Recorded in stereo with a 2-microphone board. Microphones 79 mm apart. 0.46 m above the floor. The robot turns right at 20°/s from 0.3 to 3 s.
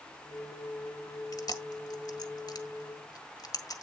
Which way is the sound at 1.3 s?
55° left (ahead or behind).